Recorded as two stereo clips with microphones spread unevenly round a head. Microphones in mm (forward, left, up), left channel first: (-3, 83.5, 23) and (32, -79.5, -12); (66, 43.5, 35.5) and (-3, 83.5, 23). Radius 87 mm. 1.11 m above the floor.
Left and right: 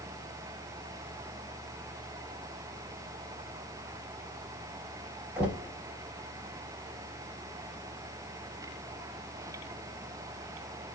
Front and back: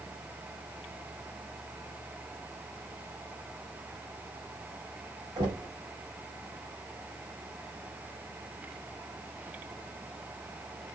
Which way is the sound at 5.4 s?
160° right.